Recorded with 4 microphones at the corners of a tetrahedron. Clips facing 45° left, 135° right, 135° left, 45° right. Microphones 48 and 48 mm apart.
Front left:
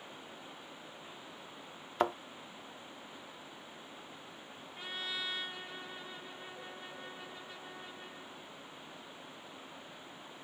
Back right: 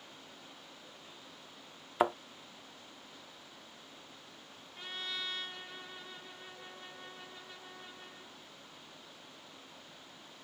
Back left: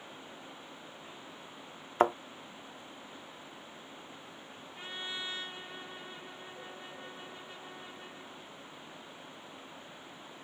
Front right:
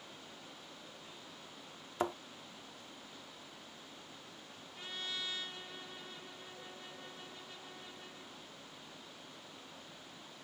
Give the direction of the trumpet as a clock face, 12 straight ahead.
8 o'clock.